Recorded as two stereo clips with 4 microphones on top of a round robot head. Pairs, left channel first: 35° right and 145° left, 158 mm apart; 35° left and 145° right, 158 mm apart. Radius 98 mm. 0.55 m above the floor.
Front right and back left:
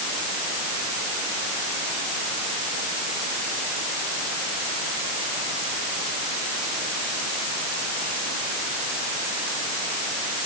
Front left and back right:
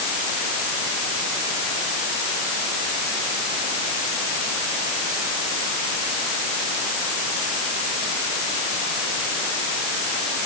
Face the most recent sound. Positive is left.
No sound to turn to.